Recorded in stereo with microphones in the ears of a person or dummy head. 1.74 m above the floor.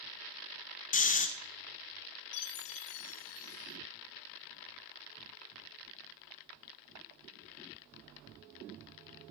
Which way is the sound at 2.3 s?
65° left (ahead or behind).